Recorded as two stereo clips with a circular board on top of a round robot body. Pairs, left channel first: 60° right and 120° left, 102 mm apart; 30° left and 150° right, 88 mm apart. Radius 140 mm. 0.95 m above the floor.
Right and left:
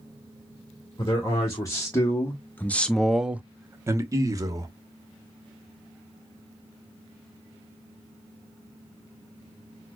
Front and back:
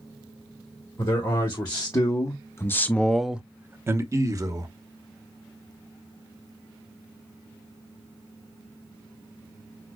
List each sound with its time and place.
1.0 s a man speaking: 5° right, 1.5 m; by 4.7 s 170° left, 1.2 m